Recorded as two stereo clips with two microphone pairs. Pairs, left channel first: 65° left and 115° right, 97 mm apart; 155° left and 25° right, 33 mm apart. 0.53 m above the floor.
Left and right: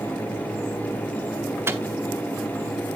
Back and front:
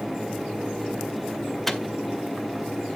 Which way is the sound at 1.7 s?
135° right.